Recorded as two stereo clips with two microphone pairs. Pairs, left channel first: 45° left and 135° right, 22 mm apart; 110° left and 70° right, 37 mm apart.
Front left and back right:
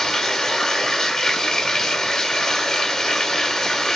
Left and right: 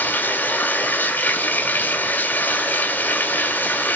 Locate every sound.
0.0 s running water: 120° left, 1.9 m